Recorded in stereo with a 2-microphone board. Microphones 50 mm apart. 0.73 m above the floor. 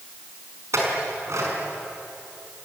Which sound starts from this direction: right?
A clink, at 0.7 s.